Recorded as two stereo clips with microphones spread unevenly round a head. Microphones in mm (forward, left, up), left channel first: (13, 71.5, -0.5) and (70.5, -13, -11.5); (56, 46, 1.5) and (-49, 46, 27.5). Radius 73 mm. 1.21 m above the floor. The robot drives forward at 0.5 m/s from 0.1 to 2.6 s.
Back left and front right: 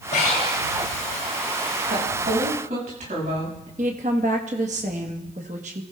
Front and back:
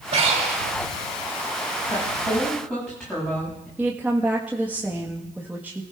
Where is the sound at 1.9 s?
80° right, 7 m.